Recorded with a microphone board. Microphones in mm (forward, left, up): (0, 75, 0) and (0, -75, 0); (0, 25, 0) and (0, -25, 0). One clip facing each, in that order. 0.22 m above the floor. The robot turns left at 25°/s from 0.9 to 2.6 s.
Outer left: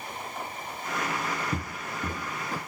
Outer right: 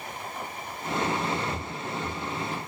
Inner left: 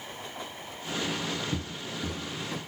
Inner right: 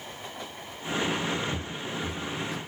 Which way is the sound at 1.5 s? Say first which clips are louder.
Outer right 1 dB, inner right 2 dB; 60° left (ahead or behind).